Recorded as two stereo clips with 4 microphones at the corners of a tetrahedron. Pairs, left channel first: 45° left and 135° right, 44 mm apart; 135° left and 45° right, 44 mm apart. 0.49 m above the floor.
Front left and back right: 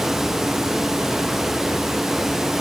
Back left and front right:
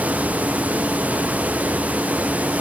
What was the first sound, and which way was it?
Only background noise.